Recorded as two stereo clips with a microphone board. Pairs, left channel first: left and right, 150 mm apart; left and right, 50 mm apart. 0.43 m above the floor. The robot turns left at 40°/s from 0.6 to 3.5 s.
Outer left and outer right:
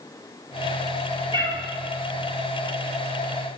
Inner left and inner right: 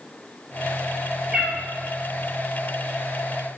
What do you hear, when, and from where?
1.3 s a cat meowing: 30° right (ahead or behind), 0.7 m; by 1.6 s 40° right (ahead or behind), 0.7 m